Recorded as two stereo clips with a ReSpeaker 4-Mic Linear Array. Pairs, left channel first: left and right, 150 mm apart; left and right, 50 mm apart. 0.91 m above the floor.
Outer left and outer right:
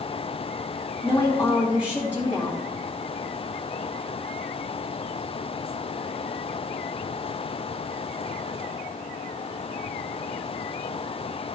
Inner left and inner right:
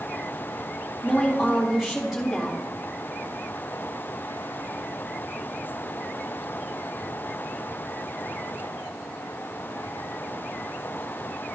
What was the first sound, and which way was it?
A woman speaking, 10° right (ahead or behind).